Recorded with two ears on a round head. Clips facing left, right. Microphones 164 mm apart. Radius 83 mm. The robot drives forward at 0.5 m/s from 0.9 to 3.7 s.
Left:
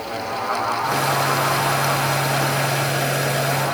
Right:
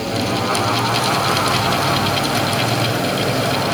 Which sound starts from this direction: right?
Running water, at 0.0 s.